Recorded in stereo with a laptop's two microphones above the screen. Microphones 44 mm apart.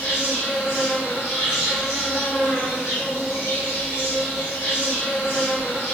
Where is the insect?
60° left (ahead or behind), 1.5 m.